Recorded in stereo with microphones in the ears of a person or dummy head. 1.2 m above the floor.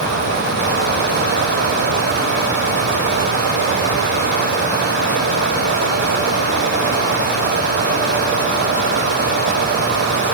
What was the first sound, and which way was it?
Only background noise.